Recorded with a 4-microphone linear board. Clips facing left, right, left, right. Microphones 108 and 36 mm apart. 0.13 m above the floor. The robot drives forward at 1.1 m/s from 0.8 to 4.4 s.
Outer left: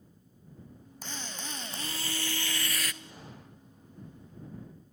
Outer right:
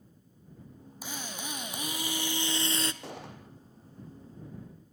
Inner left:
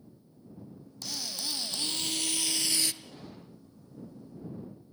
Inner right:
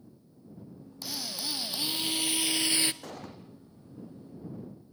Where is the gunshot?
80° right, 5 m.